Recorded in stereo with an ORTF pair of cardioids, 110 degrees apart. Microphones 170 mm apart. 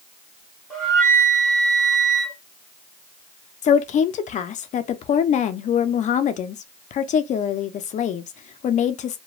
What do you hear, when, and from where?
0.7 s a flute: 5° left, 1.6 m
3.6 s a woman speaking: 50° left, 0.5 m